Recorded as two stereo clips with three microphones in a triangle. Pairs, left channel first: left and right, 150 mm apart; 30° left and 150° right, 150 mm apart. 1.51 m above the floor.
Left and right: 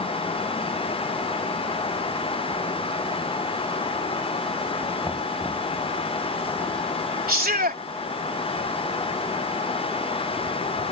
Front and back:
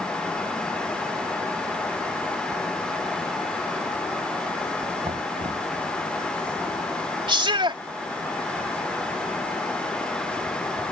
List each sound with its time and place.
5.0 s knocking: 160° left
7.3 s a shout: 95° right